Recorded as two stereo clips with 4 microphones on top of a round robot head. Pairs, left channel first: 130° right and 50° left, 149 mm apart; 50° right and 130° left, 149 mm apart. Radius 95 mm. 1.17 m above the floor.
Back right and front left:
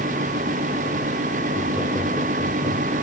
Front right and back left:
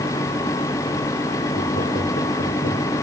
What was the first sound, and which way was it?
Laughter, 65° right.